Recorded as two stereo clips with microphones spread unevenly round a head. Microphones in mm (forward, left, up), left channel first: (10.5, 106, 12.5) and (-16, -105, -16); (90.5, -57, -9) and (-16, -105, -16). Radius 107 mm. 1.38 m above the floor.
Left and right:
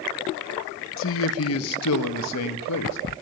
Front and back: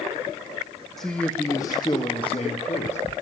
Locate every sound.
1.0 s a man speaking: 110° left, 1.5 m; by 3.0 s 80° left, 2.0 m